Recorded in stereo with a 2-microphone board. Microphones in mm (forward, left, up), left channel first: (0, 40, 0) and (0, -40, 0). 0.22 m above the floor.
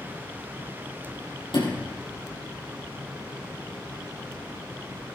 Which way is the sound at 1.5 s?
80° left.